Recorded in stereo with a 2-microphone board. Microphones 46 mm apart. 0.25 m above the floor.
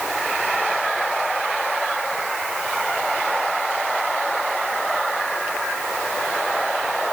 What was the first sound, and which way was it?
Only background noise.